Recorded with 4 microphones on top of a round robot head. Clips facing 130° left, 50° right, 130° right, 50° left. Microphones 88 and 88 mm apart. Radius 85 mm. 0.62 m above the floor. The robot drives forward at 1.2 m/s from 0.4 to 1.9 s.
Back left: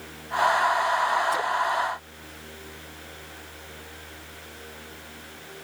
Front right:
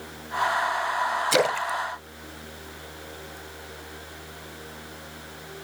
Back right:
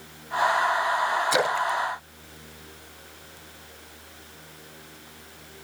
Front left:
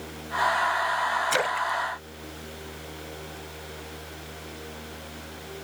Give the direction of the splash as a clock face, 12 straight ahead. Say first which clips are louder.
Front right 1 dB, back right 2 dB; 2 o'clock.